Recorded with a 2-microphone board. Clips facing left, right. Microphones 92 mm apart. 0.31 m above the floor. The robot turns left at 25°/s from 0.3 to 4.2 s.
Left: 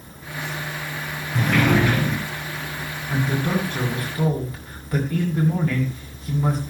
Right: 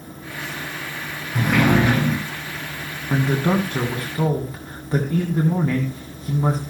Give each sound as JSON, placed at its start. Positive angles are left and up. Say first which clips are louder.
{"t": 1.4, "sound": "a sliding door", "louder": "right 1 dB", "side_deg": -5, "distance_m": 4.0}
{"t": 3.1, "sound": "a man speaking", "louder": "right 4 dB", "side_deg": -50, "distance_m": 2.5}